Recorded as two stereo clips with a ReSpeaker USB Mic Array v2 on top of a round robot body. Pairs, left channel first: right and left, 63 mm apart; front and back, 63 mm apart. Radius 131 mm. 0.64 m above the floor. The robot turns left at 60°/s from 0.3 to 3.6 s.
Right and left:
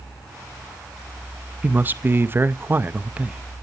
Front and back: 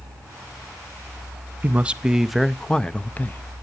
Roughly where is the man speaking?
Behind left.